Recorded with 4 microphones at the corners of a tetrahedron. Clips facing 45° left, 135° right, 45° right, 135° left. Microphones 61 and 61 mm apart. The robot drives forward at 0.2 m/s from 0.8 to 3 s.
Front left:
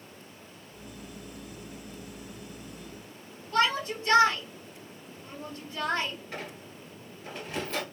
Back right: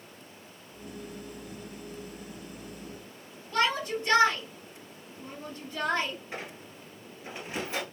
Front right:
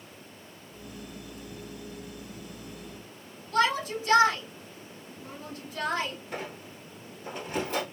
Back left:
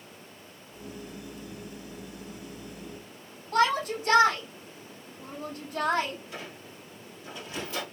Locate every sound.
3.5 s a shout: 160° left, 2.5 m
6.3 s a squeak: 65° right, 1.4 m